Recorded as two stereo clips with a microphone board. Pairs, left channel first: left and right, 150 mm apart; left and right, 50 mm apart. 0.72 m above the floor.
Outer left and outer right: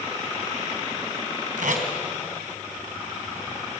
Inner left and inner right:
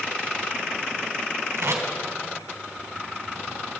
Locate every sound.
1.6 s tape being pulled: 65° right (ahead or behind), 3 m